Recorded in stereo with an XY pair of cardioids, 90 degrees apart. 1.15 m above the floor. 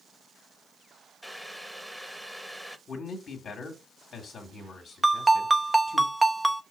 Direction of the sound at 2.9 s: 60° left.